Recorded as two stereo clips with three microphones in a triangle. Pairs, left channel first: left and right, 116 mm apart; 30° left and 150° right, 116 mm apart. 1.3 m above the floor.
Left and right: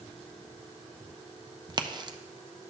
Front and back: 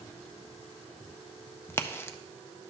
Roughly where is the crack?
Ahead right.